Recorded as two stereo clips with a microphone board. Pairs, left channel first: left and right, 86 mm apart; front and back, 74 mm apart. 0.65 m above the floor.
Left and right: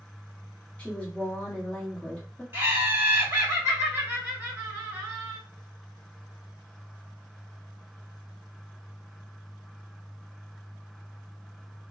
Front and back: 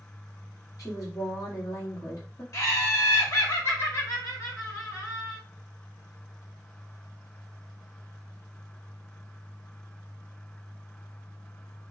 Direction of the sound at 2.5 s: 30° right.